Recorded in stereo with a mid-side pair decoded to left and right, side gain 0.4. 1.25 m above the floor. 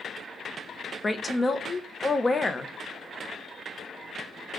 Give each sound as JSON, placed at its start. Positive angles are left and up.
{"t": 1.0, "sound": "a woman speaking", "azimuth_deg": 25, "distance_m": 0.8}